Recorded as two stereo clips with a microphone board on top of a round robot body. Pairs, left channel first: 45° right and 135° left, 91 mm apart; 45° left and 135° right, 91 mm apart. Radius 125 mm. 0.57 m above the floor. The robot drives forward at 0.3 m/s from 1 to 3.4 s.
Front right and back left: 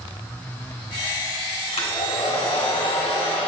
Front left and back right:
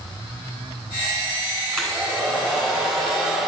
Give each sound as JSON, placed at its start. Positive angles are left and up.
{"t": 1.7, "sound": "a hair dryer", "azimuth_deg": -40, "distance_m": 3.0}